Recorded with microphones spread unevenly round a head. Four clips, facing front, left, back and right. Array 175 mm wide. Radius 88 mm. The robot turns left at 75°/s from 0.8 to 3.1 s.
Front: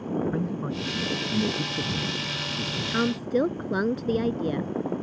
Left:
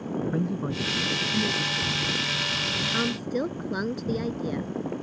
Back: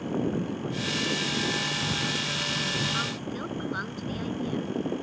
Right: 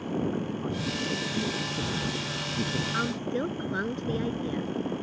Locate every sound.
0.3 s a man speaking: 60° left; by 2.8 s 90° right
2.9 s a woman speaking: 20° left; by 4.7 s 5° left